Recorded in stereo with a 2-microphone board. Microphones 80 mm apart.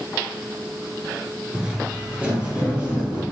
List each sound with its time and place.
1.5 s footsteps: 10° right (ahead or behind), 1.6 m; by 3.2 s 15° right (ahead or behind), 3 m